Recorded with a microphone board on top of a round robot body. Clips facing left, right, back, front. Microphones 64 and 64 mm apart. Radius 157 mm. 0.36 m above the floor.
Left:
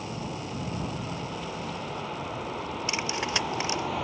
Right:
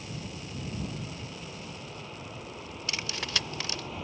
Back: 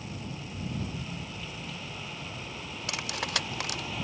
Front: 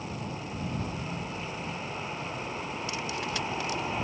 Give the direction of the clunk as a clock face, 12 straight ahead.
I don't hear a clunk.